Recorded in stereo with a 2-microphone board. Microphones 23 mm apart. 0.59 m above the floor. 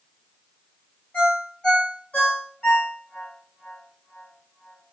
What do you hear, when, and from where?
1.1 s a ringtone: 60° left (ahead or behind), 2 m